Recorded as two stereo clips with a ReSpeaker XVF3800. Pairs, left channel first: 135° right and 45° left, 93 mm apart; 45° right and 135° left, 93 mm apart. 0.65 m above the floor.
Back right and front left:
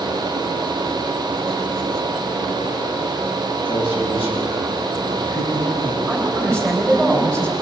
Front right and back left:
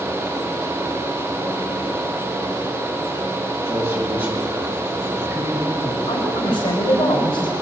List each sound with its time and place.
3.6 s a man speaking: 165° right, 7.5 m; by 6.0 s 135° right, 5.5 m
6.1 s a woman speaking: 60° right, 3.5 m